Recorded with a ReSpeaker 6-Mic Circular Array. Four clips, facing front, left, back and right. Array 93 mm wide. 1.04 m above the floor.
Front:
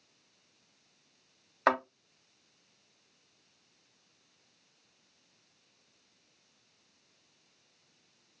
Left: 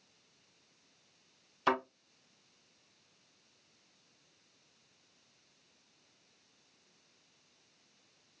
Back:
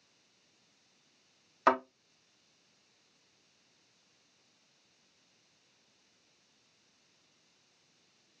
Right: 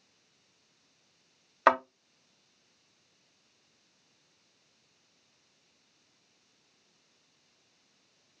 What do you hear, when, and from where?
1.7 s a thud: 75° right, 1.9 m